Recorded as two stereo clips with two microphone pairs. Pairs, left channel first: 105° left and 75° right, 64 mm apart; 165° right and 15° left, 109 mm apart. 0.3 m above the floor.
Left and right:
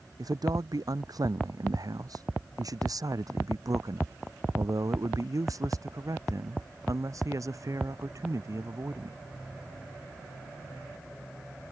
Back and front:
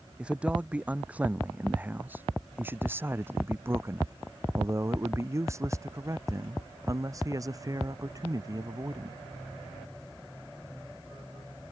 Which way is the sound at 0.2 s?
65° right.